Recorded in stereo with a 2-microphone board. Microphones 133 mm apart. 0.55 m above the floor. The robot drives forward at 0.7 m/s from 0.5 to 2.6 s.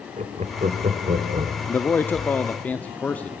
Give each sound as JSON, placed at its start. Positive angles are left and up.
{"t": 0.2, "sound": "laughter", "side_deg": -65, "distance_m": 1.5}
{"t": 1.7, "sound": "a man speaking", "side_deg": 15, "distance_m": 0.7}